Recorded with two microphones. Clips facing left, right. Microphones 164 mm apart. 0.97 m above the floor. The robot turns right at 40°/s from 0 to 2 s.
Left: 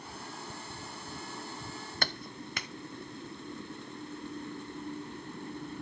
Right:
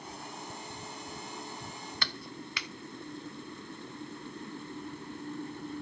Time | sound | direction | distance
2.0 | a clap | 45° left (ahead or behind) | 0.6 m